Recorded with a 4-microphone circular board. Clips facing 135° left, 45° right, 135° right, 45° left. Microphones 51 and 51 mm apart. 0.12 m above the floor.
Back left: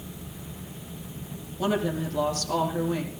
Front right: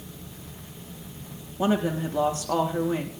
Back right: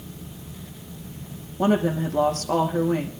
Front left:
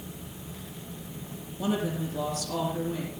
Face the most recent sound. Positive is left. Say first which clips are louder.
# front right 2 dB, back right 8 dB
turn(degrees=-105)